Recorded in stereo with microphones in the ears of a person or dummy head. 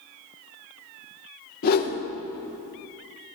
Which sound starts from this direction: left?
A whoosh, at 1.6 s.